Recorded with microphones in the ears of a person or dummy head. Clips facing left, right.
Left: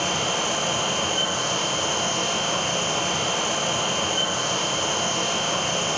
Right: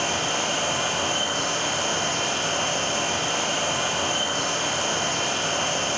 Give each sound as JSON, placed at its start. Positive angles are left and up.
{"t": 0.0, "sound": "a fan", "side_deg": 55, "distance_m": 1.9}